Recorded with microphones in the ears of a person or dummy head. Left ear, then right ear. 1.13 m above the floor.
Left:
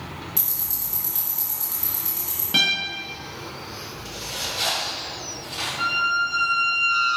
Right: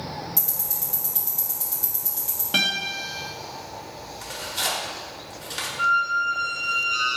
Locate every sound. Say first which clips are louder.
0.4 s ticking: even; 5° left (ahead or behind), 0.7 m
2.5 s a guitar: left 2 dB; 15° right (ahead or behind), 0.7 m
4.2 s tearing paper: left 2 dB; 55° right (ahead or behind), 1.0 m
5.8 s a squeak: right 1 dB; 25° left (ahead or behind), 1.9 m